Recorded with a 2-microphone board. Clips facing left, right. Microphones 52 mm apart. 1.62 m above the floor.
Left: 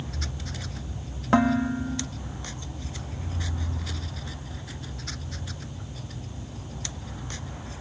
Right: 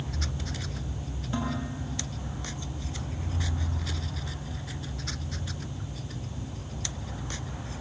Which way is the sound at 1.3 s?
65° left (ahead or behind).